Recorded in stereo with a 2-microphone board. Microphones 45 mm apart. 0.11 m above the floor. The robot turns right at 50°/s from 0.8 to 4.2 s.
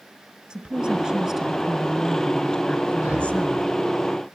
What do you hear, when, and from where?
0.5 s a woman speaking: 20° right (ahead or behind), 1.7 m; by 3.6 s 25° left (ahead or behind), 1.7 m
3.0 s breathing: 30° right (ahead or behind), 3 m; by 3.4 s 45° right (ahead or behind), 3 m